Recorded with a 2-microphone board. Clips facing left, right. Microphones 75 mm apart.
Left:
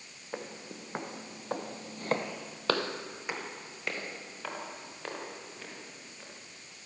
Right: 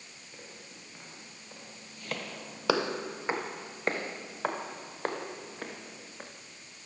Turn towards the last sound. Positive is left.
turn(degrees=-45)  # may be behind; listen again after turning